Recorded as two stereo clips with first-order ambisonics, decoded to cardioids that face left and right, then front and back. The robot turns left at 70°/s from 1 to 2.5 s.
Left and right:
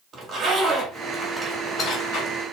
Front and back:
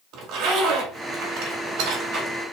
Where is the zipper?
150° right, 1.6 m; by 2.4 s 110° left, 1.6 m.